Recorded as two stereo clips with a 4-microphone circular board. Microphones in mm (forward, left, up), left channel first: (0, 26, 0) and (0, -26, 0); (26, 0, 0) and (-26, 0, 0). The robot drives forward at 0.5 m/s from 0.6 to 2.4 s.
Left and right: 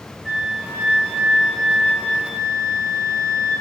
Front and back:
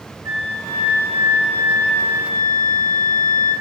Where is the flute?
160° right, 3 m; by 3.5 s 165° right, 4 m.